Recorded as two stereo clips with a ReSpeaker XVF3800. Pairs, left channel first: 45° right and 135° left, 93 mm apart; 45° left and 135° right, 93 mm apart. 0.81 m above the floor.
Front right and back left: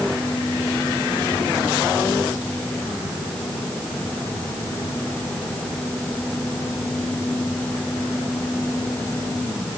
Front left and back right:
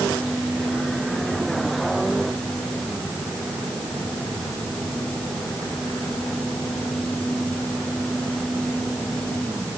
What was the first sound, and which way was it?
Only background noise.